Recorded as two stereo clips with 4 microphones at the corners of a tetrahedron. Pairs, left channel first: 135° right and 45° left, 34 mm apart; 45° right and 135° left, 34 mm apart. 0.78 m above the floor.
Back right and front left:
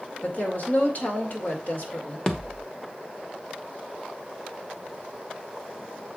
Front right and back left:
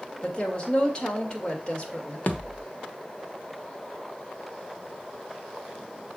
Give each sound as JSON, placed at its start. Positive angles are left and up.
{"t": 0.2, "sound": "a woman speaking", "azimuth_deg": -105, "distance_m": 2.0}
{"t": 2.3, "sound": "a thud", "azimuth_deg": -75, "distance_m": 1.0}